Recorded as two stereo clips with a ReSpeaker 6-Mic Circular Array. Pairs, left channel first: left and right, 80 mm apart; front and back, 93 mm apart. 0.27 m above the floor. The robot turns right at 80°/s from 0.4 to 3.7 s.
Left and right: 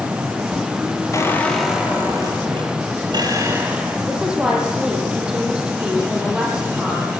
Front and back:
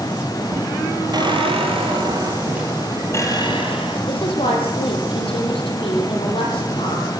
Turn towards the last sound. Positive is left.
turn(degrees=-10)